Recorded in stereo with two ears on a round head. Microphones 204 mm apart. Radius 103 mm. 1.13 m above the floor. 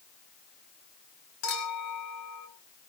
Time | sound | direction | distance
1.4 | a clink | 70° left (ahead or behind) | 5 m